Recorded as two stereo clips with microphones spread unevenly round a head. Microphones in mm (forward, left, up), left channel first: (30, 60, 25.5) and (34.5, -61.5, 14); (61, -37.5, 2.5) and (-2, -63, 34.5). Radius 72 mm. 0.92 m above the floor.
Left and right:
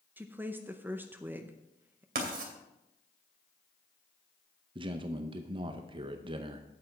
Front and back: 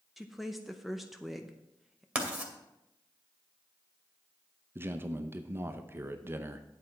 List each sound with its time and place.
0.2 s a woman speaking: 35° right, 0.7 m
2.1 s writing: 90° right, 2.5 m
4.8 s a man speaking: 85° right, 0.6 m